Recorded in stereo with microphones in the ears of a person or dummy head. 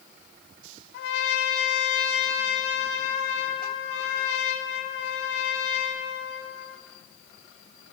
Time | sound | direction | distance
0.9 | a trumpet | 55° left (ahead or behind) | 1.3 m